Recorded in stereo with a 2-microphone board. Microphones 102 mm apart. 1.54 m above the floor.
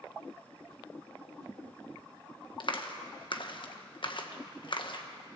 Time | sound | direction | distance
2.6 | a clap | 55° left (ahead or behind) | 1.4 m